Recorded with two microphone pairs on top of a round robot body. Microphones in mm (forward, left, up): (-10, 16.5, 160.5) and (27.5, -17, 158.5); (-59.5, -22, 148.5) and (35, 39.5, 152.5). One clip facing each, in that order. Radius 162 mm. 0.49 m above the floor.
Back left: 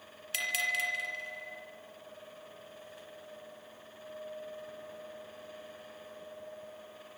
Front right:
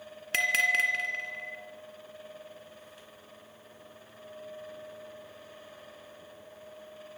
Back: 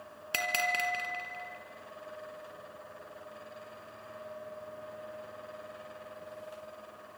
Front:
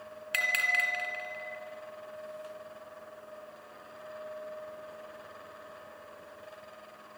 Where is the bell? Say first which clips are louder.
Front right 7 dB, back 2 dB; 90° right, 3.5 m.